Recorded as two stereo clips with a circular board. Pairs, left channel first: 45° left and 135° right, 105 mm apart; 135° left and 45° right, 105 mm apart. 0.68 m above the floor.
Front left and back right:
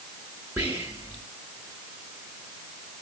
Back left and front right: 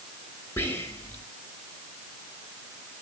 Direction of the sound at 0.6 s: 175° left.